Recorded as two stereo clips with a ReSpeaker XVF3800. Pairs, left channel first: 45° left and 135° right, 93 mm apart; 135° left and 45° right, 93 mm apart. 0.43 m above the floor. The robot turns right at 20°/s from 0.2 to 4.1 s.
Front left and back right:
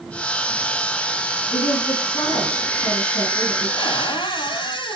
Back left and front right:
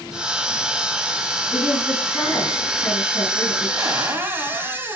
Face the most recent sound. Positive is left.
turn(degrees=20)